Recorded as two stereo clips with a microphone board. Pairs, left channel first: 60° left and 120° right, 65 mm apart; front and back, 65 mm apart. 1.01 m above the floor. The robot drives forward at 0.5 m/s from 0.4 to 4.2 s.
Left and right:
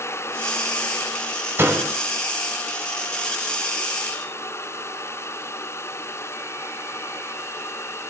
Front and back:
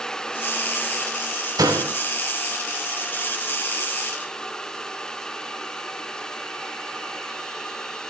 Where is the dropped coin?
I don't hear a dropped coin.